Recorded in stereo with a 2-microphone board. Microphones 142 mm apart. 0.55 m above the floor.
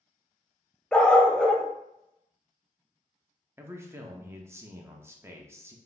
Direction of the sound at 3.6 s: 20° right (ahead or behind).